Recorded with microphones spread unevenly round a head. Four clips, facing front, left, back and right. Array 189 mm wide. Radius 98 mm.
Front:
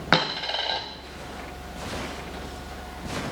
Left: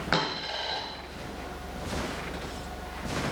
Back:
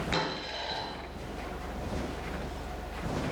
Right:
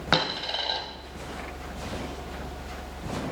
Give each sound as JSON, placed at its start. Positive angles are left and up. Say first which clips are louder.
{"t": 0.1, "sound": "a dropped coin", "louder": "right 3 dB, front 13 dB", "azimuth_deg": -15, "distance_m": 1.7}